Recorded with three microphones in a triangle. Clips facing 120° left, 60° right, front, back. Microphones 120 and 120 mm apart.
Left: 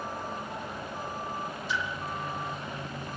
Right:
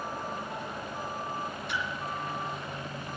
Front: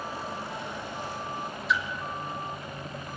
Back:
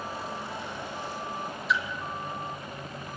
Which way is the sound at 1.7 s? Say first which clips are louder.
Left 3 dB, even; 90° right.